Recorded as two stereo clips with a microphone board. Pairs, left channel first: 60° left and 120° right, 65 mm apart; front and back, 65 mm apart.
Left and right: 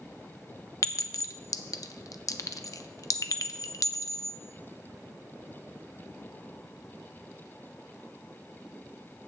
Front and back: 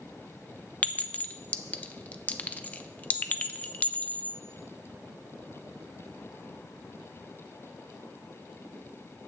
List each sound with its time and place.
0.8 s a clink: 60° left, 0.6 m